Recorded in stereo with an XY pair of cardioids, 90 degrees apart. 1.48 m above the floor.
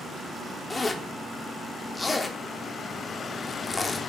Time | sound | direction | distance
0.7 | a zipper | 25° left | 3 m